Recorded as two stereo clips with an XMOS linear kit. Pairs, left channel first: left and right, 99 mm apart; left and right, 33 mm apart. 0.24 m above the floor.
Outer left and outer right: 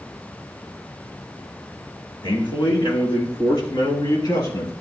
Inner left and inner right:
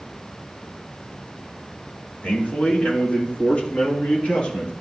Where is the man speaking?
60° left (ahead or behind), 2 m; by 4.7 s 45° left (ahead or behind), 3.5 m.